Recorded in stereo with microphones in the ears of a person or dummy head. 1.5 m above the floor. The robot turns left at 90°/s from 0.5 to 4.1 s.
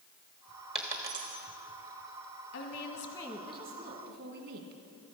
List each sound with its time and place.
0.8 s a dropped coin: centre (ahead or behind), 1.1 m; by 1.4 s 40° right (ahead or behind), 1.1 m
2.5 s a woman speaking: 70° left, 1.5 m; by 4.7 s 70° right, 1.5 m